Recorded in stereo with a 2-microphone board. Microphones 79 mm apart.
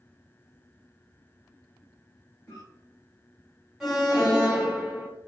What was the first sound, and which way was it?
A cough, 25° left (ahead or behind).